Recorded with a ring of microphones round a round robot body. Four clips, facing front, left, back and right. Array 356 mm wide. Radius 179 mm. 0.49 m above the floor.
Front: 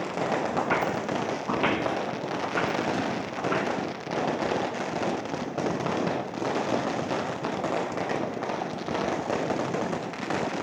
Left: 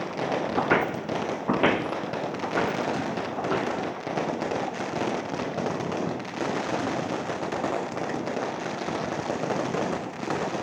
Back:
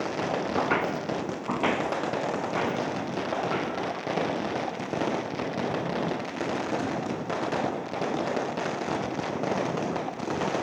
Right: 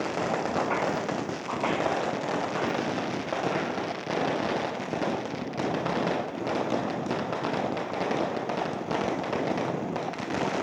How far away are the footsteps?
About 1.9 m.